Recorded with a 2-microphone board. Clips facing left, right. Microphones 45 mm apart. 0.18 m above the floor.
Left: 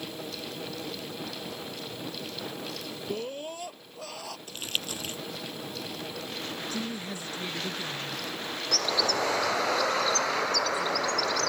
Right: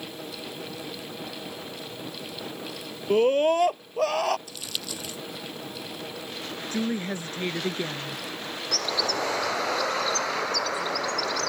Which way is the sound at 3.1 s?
60° right (ahead or behind).